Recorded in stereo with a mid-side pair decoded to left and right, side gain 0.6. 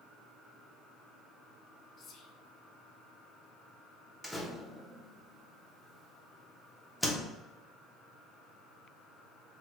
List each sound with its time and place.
2.0 s whispering: 45° left, 0.7 m
4.2 s a door slam: 5° left, 0.8 m